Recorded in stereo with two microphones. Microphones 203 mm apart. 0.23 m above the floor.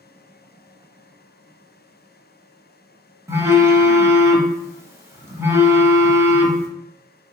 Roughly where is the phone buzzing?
Centre.